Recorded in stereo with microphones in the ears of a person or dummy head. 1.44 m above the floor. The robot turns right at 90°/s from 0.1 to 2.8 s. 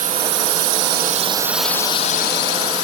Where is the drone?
45° right (ahead or behind); by 2.8 s 60° left (ahead or behind).